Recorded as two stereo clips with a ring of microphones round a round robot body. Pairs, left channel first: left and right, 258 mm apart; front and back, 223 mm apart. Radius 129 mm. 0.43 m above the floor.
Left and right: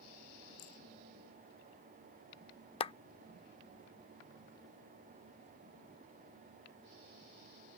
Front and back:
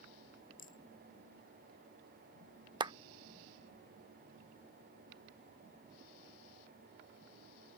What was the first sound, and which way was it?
A rattle, 55° left.